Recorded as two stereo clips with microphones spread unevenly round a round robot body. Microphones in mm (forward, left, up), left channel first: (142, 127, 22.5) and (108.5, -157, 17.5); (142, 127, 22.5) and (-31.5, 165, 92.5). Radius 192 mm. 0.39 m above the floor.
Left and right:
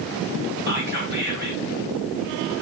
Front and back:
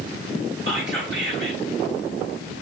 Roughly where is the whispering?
Behind.